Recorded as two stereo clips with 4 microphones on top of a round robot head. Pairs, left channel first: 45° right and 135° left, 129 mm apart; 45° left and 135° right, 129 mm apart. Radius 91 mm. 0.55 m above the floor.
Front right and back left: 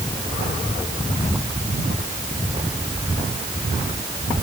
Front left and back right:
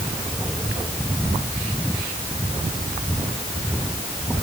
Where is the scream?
No scream in this recording.